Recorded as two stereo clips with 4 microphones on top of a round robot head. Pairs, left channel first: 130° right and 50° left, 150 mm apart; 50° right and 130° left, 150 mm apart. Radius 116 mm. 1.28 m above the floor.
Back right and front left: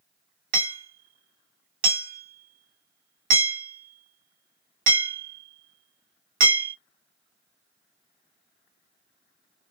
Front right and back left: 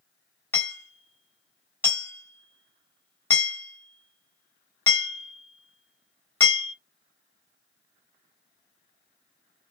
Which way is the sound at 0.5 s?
25° left.